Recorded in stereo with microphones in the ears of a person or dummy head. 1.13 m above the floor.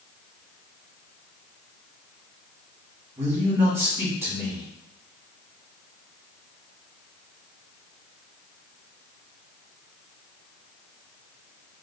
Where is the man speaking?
20° right (ahead or behind), 1.8 m.